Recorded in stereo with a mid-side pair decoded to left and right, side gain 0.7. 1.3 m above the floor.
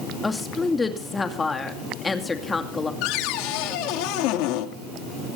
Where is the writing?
No writing in this recording.